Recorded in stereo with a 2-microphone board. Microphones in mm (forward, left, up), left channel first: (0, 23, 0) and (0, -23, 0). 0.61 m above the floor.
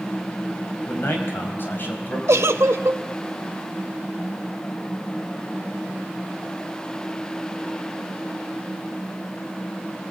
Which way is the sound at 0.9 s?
55° left (ahead or behind).